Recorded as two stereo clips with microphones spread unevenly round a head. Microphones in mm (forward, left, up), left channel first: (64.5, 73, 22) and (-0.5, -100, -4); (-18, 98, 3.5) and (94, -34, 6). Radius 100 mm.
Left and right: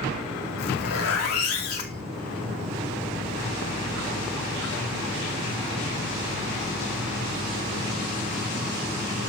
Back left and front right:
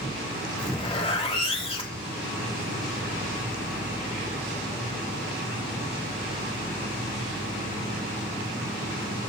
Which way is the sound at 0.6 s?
70° left.